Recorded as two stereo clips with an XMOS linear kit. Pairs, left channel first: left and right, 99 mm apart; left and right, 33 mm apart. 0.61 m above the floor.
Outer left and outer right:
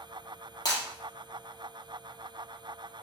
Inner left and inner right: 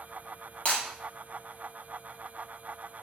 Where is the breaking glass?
40° left (ahead or behind), 5 m.